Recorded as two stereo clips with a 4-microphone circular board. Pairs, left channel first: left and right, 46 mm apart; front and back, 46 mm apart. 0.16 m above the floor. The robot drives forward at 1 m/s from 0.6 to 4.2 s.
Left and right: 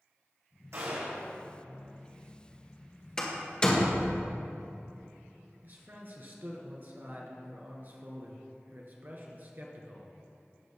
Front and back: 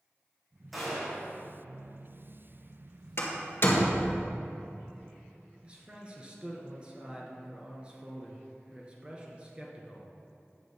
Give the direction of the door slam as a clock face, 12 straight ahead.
11 o'clock.